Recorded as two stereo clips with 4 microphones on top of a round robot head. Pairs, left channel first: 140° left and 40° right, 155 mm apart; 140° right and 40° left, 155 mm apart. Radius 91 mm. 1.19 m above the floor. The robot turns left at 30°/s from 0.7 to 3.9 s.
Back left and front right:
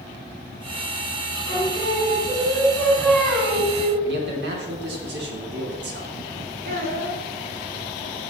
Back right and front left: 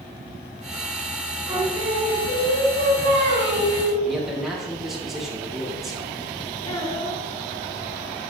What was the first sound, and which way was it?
Singing, 100° left.